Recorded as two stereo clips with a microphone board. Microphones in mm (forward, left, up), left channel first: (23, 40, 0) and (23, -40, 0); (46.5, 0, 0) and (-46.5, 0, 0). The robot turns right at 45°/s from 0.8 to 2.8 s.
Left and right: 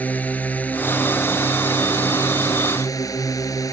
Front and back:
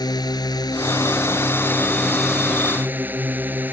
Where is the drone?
25° left; by 3.7 s 115° left.